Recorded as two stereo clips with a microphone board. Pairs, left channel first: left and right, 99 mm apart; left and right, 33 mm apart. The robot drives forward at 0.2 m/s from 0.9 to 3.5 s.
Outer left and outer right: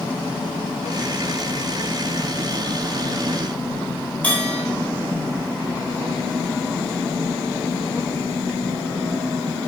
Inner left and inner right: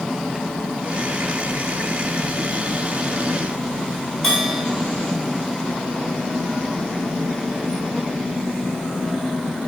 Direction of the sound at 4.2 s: 15° left (ahead or behind).